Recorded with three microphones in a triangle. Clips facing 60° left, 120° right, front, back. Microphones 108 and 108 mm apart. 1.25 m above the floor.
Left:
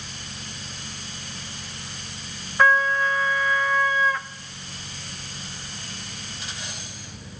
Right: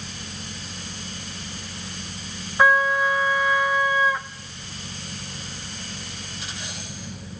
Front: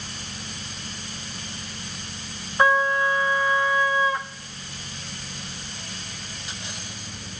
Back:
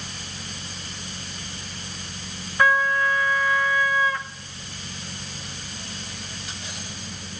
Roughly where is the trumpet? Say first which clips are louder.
Right 1 dB, front 1 dB; ahead right.